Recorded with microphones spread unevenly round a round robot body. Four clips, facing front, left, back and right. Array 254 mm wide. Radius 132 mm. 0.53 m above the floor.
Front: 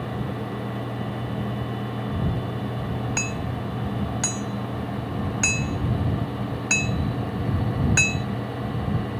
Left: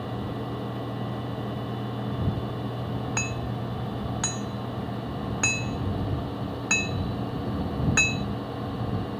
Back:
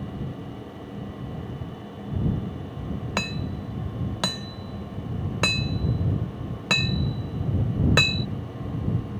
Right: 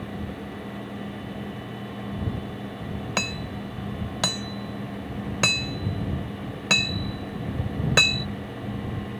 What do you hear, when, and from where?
3.2 s hammering: 140° right